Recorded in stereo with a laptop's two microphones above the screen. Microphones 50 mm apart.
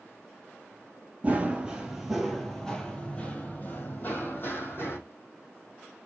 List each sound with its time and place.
1.2 s running footsteps: 25° right (ahead or behind), 1.2 m; by 5.0 s 50° left (ahead or behind), 2 m